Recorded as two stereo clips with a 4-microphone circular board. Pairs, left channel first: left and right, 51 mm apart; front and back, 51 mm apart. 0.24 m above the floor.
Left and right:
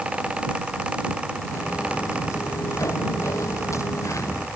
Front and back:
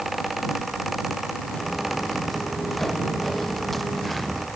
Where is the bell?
No bell in this recording.